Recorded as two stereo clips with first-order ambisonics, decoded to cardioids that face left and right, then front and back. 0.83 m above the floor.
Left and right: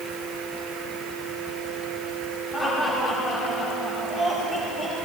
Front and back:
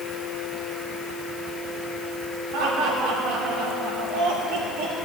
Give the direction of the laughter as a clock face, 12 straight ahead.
6 o'clock.